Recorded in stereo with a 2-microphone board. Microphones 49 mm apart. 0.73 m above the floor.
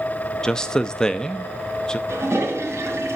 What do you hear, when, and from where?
0.4 s a man speaking: 15° left (ahead or behind), 0.6 m
2.1 s a toilet flushing: 65° right (ahead or behind), 2.5 m